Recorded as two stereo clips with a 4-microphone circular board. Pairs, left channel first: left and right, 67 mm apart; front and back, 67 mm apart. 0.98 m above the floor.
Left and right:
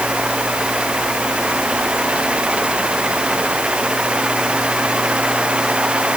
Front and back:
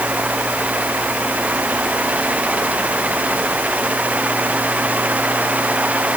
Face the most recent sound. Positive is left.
No sound to turn to.